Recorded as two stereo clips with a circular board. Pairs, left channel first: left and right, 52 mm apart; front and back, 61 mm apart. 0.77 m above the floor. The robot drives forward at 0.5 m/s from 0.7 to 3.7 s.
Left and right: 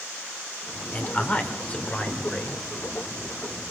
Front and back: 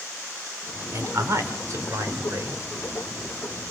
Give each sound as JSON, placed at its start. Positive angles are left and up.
{"t": 0.9, "sound": "a man speaking", "azimuth_deg": 145, "distance_m": 2.5}